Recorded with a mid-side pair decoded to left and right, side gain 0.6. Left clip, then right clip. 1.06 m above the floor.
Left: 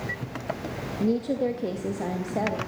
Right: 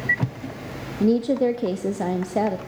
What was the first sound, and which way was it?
A woman speaking, 30° right.